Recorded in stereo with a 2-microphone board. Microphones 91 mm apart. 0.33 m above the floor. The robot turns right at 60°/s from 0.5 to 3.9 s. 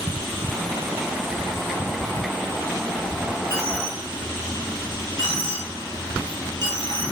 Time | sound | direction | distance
3.5 | a dropped coin | 25° right (ahead or behind) | 1.2 m